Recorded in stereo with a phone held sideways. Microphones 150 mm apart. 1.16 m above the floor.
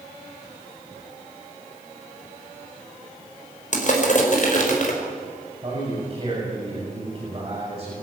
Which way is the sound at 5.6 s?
30° right (ahead or behind).